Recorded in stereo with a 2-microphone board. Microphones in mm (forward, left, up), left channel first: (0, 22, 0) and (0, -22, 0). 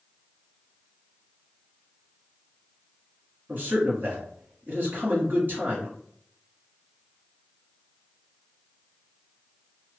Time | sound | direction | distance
3.5 | a man speaking | 45° right (ahead or behind) | 1.5 m